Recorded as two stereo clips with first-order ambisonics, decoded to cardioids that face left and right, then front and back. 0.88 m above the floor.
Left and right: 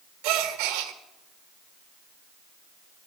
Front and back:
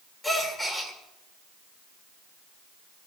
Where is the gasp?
90° right, 1.6 m.